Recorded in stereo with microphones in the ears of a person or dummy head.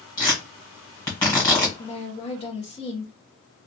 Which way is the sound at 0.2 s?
20° left (ahead or behind).